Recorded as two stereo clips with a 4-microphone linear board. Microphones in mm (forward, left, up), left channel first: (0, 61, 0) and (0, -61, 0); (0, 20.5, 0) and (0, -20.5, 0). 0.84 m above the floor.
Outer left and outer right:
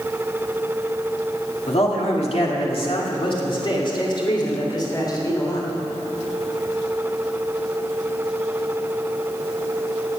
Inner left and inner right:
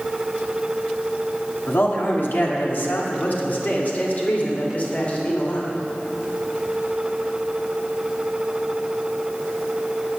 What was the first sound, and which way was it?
A man speaking, 60° left (ahead or behind).